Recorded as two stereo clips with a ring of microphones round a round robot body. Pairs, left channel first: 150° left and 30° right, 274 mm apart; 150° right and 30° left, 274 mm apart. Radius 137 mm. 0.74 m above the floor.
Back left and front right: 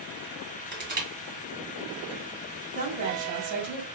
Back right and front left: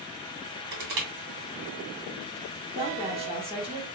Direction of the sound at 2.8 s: 40° right.